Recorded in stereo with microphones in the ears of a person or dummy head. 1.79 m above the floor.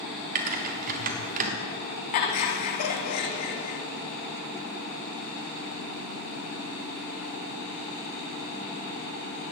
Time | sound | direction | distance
0.3 | typing on a keyboard | 45° right (ahead or behind) | 1.3 m
2.1 | laughter | 50° left (ahead or behind) | 1.4 m